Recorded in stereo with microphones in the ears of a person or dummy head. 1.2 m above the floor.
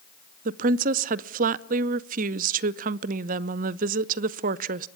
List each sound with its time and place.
0.5 s a woman speaking: 40° right (ahead or behind), 0.6 m